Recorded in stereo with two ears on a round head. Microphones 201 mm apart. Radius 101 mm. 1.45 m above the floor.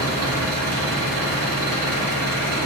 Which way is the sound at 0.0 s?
80° right.